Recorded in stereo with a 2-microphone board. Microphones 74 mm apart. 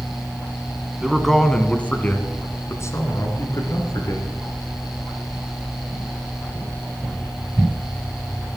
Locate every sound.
1.0 s a man speaking: 5° right (ahead or behind), 1.6 m; by 4.3 s 65° left (ahead or behind), 3 m